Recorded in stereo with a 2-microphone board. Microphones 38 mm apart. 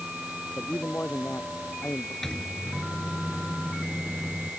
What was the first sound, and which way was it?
A man speaking, 60° left (ahead or behind).